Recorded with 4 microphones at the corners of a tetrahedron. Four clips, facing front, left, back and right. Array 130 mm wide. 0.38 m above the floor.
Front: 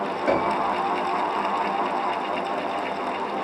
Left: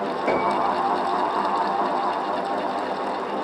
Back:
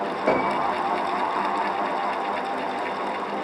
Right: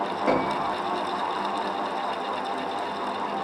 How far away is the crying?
No crying in this recording.